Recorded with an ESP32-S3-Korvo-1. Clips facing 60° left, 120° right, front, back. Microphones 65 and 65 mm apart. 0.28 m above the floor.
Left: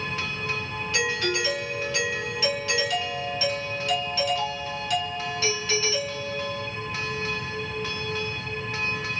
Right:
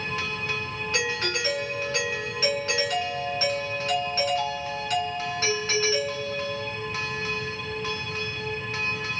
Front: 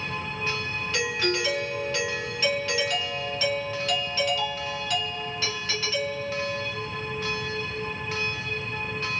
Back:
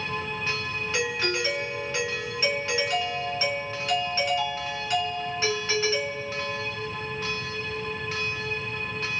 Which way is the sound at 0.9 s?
125° right.